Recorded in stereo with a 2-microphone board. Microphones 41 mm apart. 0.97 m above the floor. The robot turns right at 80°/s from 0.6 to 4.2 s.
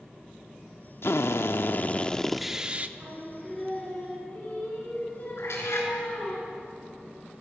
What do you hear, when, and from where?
1.0 s a drill: 75° left, 0.9 m; by 2.9 s 135° right, 0.9 m
3.0 s singing: 45° right, 8 m; by 6.4 s 50° left, 8 m
5.4 s a cat meowing: 85° left, 5 m